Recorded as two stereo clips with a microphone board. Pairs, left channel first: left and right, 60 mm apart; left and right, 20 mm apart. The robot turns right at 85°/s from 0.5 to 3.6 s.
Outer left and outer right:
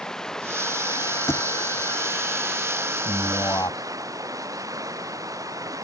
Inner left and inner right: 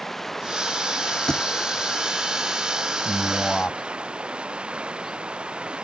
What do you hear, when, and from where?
0.0 s running water: 10° left; by 5.8 s 85° right
1.3 s a thud: 50° left (ahead or behind); by 1.4 s 35° left (ahead or behind)
3.0 s a man speaking: 25° left; by 3.8 s 70° left